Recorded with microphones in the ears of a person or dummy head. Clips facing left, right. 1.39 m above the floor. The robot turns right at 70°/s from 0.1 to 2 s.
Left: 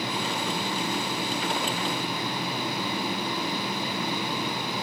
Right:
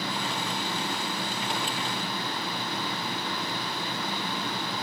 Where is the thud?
No thud in this recording.